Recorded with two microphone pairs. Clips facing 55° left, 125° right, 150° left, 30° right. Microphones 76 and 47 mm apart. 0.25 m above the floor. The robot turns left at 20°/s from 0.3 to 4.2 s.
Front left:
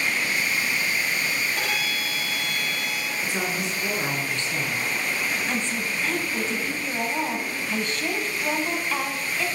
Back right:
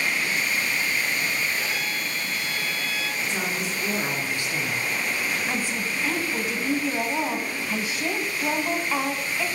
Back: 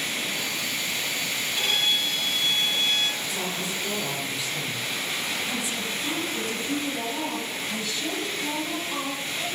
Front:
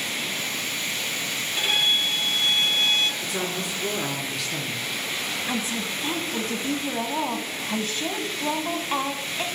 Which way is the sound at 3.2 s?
30° right.